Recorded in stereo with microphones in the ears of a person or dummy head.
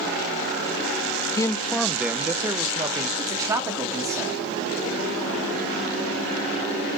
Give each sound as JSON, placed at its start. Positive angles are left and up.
{"t": 1.4, "sound": "a man speaking", "side_deg": 15, "distance_m": 0.6}
{"t": 3.2, "sound": "a man speaking", "side_deg": -20, "distance_m": 2.5}